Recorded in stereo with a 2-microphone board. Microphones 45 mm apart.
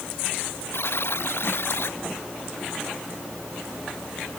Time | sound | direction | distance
0.7 | a buzzer | 65° left (ahead or behind) | ?